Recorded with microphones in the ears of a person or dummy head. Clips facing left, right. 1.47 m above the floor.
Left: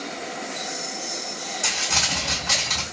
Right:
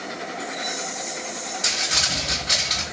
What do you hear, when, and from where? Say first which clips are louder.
1.6 s crumpling: left 1 dB; 50° left (ahead or behind), 2 m